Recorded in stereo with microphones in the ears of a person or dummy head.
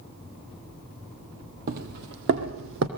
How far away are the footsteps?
About 1.8 m.